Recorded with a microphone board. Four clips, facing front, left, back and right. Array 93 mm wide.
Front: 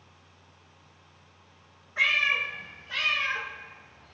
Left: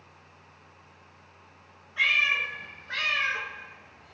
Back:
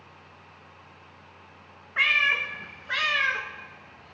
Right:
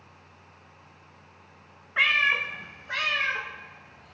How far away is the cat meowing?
About 0.8 m.